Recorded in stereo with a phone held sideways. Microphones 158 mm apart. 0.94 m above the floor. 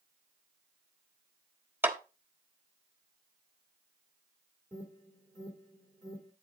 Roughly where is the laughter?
No laughter in this recording.